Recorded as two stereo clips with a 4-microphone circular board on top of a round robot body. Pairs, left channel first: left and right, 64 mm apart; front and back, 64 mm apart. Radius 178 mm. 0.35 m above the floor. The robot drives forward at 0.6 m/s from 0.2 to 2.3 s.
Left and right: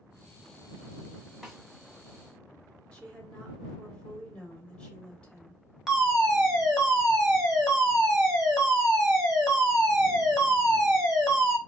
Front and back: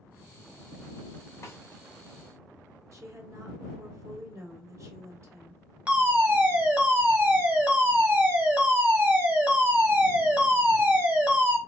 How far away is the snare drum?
About 1.7 m.